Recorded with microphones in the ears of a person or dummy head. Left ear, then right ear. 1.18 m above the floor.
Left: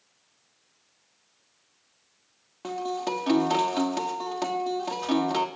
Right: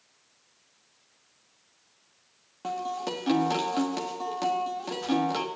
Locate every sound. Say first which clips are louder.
2.6 s a guitar: left 1 dB; 10° left (ahead or behind), 1.5 m